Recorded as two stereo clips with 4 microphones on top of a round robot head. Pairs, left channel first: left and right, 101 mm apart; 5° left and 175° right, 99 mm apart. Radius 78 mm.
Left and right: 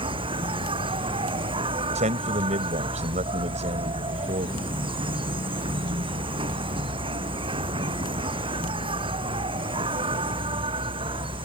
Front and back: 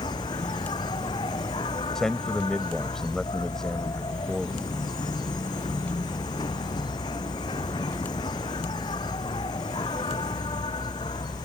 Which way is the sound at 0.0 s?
55° right.